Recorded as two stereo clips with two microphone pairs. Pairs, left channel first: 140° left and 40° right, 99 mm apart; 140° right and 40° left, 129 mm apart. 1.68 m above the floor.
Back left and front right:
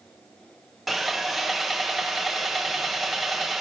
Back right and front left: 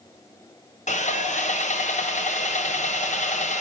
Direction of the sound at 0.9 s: 130° right.